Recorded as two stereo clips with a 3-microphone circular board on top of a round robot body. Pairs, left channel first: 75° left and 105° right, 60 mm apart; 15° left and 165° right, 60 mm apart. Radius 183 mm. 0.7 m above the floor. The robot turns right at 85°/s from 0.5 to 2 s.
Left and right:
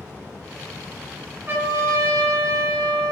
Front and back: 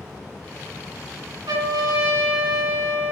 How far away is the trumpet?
About 4.5 m.